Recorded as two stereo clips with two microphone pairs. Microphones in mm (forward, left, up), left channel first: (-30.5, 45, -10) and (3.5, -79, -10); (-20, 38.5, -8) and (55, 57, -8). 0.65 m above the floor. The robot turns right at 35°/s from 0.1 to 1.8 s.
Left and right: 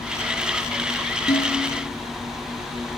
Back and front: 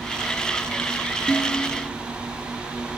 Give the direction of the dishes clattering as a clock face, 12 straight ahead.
8 o'clock.